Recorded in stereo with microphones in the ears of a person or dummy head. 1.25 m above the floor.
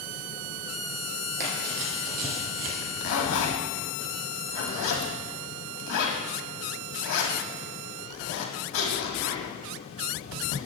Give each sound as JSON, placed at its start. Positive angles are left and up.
{"t": 1.4, "sound": "running footsteps", "side_deg": -50, "distance_m": 3.0}
{"t": 2.8, "sound": "a zipper", "side_deg": 70, "distance_m": 1.5}